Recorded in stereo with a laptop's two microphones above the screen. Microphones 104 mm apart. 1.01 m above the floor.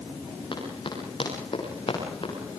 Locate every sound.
0.5 s running footsteps: 50° left (ahead or behind), 9.5 m; by 2.3 s 60° left (ahead or behind), 8.5 m